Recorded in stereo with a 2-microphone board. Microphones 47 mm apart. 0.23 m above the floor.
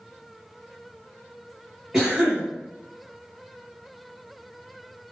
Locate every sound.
1.9 s a cough: 10° right (ahead or behind), 1.9 m